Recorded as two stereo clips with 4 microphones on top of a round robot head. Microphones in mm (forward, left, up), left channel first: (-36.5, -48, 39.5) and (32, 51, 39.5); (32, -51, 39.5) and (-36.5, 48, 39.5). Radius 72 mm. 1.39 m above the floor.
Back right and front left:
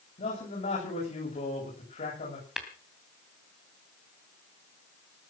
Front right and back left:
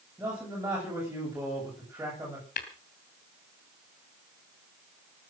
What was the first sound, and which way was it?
A man speaking, 160° right.